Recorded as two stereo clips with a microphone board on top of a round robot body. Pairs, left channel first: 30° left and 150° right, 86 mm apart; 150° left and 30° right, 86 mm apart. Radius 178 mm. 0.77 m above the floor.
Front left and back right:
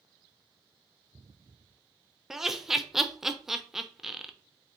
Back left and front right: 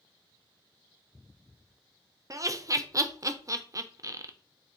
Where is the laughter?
65° right, 0.5 m.